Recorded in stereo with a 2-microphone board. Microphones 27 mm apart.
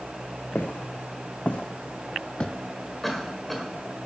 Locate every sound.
0.6 s footsteps: 70° left (ahead or behind), 1.8 m; by 2.5 s 35° left (ahead or behind), 0.6 m
3.0 s a cough: 5° left (ahead or behind), 1.7 m